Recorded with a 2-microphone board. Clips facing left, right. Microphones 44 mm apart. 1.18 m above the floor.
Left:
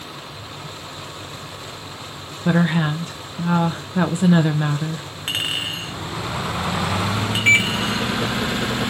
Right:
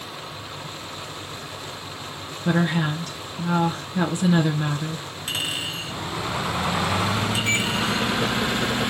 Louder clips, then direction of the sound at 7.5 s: Left 12 dB; 60° left (ahead or behind).